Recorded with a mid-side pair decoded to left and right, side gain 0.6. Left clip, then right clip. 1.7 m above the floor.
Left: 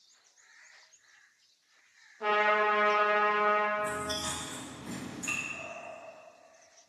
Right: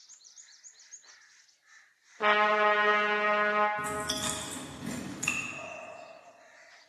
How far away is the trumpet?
About 1.9 m.